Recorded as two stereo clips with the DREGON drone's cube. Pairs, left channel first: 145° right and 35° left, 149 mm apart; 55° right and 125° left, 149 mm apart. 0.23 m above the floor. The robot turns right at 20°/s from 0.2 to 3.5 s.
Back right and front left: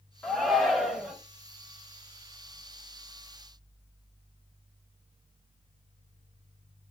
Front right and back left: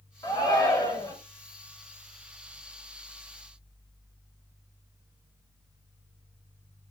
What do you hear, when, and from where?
0.2 s a shout: 65° right, 1.0 m; by 1.1 s 50° right, 1.0 m